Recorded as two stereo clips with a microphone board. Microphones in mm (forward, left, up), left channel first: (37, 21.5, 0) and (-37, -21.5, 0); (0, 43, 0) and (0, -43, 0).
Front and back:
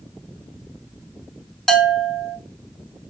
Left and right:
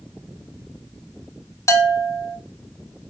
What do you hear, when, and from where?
1.7 s a bell: 110° left, 0.6 m